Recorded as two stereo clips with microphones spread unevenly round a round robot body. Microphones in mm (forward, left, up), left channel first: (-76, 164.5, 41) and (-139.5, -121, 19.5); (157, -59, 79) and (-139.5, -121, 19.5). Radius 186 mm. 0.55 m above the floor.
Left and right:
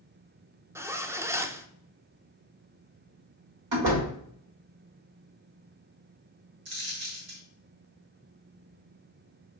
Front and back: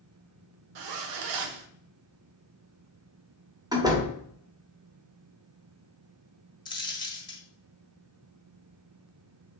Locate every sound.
0.8 s a zipper: 175° left, 0.5 m
3.7 s a door slam: 95° right, 1.3 m
6.7 s a dropped coin: 65° right, 1.2 m